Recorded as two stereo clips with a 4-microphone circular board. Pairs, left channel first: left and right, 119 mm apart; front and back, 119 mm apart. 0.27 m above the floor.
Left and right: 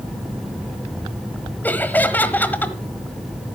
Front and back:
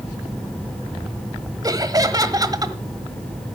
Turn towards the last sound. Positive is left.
turn(degrees=150)